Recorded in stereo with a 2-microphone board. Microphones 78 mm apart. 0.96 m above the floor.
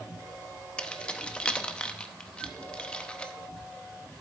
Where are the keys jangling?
15° left (ahead or behind), 0.6 m.